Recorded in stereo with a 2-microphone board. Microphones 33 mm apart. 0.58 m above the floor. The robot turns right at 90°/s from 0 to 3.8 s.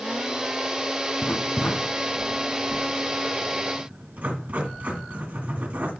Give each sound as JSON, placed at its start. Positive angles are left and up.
{"t": 1.2, "sound": "writing", "side_deg": 65, "distance_m": 2.0}